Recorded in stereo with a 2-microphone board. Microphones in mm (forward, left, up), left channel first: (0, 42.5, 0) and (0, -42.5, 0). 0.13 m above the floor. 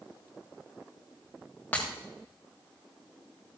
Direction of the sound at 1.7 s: 20° left (ahead or behind).